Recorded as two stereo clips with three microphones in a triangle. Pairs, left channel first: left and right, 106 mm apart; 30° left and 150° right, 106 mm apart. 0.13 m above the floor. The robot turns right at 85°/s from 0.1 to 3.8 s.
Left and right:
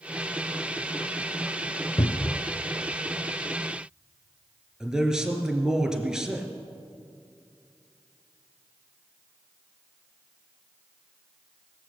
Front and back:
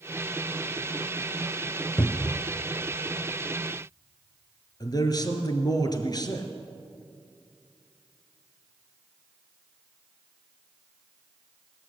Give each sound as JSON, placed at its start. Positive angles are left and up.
{"t": 2.0, "sound": "a cupboard door", "azimuth_deg": 80, "distance_m": 0.5}
{"t": 4.8, "sound": "a man speaking", "azimuth_deg": -10, "distance_m": 1.9}